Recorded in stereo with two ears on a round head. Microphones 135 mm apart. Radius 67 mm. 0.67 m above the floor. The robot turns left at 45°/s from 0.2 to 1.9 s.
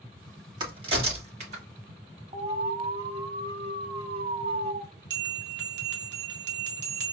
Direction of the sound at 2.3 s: 40° right (ahead or behind).